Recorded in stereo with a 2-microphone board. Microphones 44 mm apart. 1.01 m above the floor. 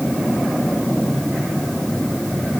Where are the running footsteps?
I don't hear running footsteps.